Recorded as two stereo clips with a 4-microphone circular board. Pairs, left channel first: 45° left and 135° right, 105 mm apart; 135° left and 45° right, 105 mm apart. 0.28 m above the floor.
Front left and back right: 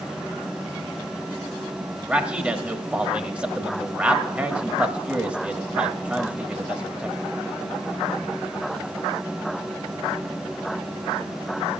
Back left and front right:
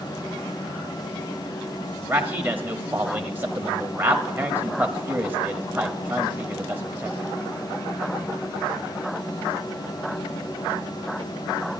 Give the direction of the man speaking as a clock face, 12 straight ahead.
3 o'clock.